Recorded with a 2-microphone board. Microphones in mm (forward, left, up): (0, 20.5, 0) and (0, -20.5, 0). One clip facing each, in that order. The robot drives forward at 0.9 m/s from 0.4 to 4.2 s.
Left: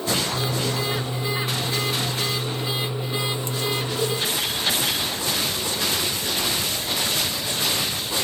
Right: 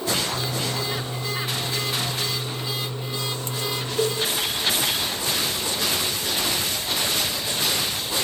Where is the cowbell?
50° right (ahead or behind), 7 m.